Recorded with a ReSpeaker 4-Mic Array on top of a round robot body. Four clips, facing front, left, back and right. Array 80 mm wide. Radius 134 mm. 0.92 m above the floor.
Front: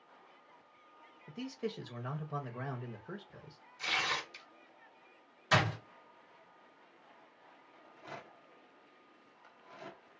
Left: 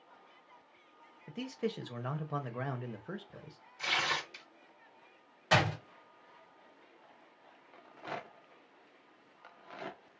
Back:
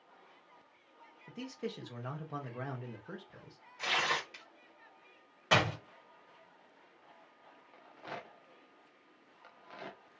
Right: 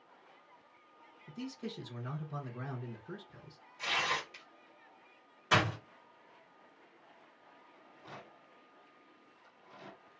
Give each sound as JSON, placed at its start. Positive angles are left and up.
{"t": 1.3, "sound": "a man speaking", "azimuth_deg": 90, "distance_m": 0.8}
{"t": 3.8, "sound": "tearing paper", "azimuth_deg": -175, "distance_m": 1.4}
{"t": 5.5, "sound": "a door slam", "azimuth_deg": 165, "distance_m": 1.7}
{"t": 7.7, "sound": "a rattle", "azimuth_deg": 110, "distance_m": 0.5}